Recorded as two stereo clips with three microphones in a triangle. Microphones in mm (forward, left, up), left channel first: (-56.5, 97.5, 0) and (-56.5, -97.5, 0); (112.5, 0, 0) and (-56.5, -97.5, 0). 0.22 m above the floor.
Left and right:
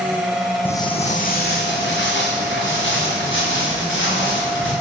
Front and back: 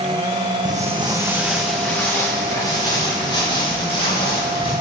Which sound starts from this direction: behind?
Footsteps, at 0.7 s.